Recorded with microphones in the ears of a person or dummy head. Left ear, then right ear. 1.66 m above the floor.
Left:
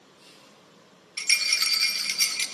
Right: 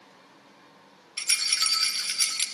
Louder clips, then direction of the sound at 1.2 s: Left 2 dB; 5° right (ahead or behind).